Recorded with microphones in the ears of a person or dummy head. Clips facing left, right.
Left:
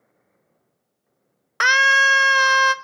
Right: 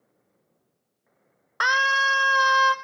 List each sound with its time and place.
1.6 s a scream: 40° left (ahead or behind), 0.6 m